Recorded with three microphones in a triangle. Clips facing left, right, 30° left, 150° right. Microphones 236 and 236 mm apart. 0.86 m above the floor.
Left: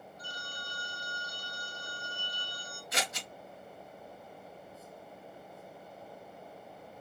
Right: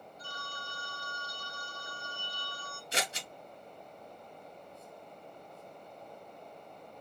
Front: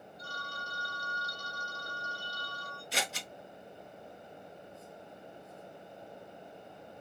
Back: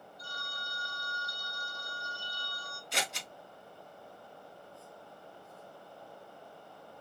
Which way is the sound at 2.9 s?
55° right.